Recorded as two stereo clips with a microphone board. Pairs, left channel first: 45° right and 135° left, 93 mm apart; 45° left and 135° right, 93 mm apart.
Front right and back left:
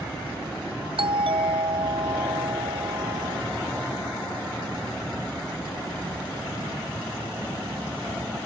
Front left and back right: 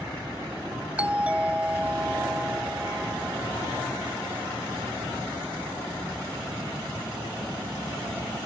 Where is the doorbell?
150° left.